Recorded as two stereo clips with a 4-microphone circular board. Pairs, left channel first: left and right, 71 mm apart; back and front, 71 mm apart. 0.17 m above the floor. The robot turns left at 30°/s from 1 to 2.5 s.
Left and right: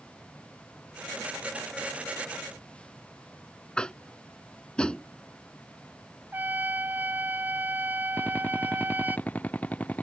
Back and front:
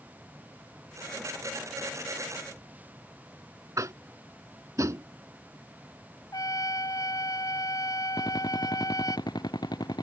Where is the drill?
160° left.